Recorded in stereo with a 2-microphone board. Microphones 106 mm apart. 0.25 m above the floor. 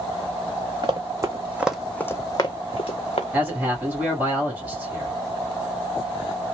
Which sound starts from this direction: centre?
A man speaking, at 3.3 s.